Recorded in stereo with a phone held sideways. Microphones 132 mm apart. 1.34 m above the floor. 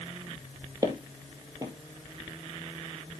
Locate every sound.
0.8 s footsteps: 25° right (ahead or behind), 2 m